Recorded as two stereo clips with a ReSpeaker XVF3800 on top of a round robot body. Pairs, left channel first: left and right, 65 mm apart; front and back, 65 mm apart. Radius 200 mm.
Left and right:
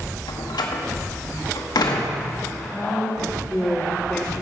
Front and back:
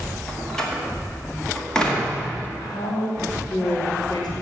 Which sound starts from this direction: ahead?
A woman speaking, at 2.6 s.